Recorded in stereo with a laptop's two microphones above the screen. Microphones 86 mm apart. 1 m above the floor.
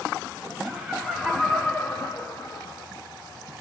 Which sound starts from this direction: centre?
Laughter, at 0.7 s.